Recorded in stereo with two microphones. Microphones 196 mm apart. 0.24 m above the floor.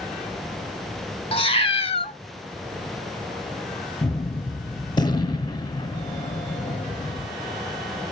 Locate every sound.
1.3 s a cat meowing: 30° left (ahead or behind), 0.7 m
4.0 s a gunshot: 20° left (ahead or behind), 0.6 m